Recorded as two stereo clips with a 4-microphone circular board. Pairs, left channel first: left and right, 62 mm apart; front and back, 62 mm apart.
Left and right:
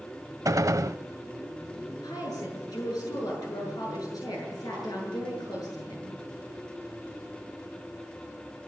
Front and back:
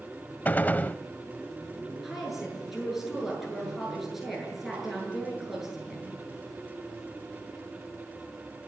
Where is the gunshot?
65° right, 0.6 m.